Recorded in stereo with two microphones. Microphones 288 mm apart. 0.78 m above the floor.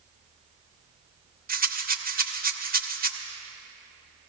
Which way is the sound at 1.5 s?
30° right (ahead or behind).